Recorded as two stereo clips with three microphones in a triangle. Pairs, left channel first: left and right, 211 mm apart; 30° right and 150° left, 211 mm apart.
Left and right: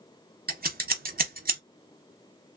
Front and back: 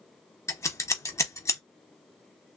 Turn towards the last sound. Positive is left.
turn(degrees=-100)